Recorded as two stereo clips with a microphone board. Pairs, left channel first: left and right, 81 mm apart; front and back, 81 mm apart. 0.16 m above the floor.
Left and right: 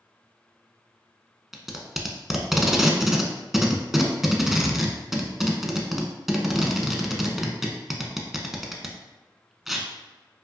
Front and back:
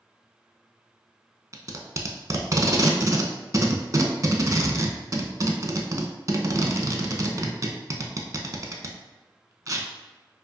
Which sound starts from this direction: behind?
Tape being pulled, at 1.5 s.